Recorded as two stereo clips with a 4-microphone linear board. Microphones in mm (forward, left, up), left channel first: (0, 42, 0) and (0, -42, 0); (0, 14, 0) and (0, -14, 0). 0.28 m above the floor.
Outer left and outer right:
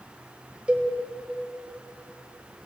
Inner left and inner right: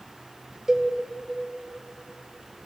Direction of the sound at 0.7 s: 15° right (ahead or behind).